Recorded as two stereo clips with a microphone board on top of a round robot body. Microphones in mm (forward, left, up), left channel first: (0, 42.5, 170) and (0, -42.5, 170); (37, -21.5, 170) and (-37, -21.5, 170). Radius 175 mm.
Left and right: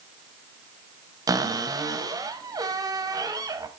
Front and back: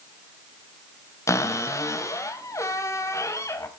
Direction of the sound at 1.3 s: 45° right.